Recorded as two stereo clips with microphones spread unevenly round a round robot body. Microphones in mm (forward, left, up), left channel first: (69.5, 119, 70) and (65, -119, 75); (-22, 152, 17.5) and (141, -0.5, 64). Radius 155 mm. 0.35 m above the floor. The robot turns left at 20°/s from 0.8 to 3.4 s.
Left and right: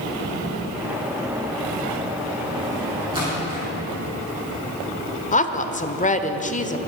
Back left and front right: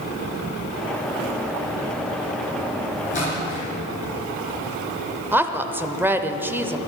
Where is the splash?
165° right, 4.5 m; by 3.6 s 170° right, 4.5 m.